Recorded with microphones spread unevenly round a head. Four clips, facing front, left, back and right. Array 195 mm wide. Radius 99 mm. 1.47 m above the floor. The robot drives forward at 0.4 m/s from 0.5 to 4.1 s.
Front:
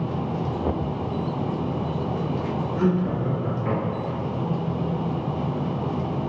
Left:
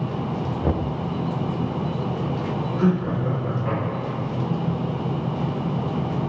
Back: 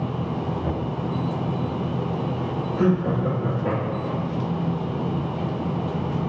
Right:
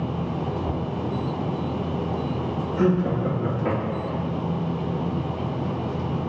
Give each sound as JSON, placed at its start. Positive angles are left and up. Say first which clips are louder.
{"t": 0.6, "sound": "knocking", "louder": "left 3 dB, front 1 dB", "azimuth_deg": 100, "distance_m": 0.7}
{"t": 2.8, "sound": "laughter", "louder": "right 2 dB, back 3 dB", "azimuth_deg": -115, "distance_m": 3.0}